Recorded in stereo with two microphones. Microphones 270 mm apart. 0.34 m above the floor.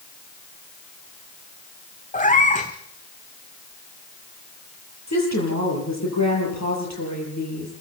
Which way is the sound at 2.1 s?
25° left (ahead or behind).